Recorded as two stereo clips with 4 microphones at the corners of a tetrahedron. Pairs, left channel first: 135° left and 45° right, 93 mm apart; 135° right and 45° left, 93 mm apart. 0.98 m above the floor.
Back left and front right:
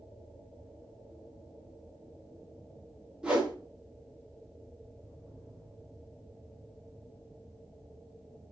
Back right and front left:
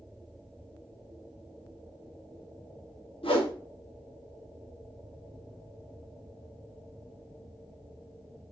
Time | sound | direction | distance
3.2 | a whoosh | 125° right | 1.0 m